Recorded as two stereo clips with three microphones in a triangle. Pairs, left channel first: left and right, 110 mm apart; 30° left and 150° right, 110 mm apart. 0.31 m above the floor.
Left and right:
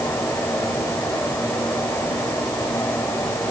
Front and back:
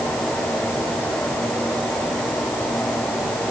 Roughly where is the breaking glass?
I don't hear breaking glass.